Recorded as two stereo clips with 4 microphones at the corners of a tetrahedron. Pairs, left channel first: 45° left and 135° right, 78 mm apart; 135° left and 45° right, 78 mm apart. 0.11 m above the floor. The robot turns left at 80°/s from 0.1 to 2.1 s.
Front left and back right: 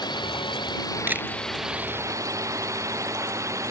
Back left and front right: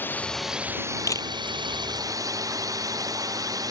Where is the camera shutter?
170° left; by 1.3 s 150° left.